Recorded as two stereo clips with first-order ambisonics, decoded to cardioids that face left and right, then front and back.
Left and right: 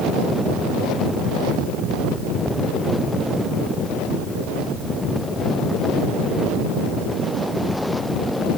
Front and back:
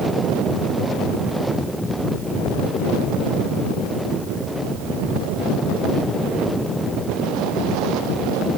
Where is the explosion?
No explosion in this recording.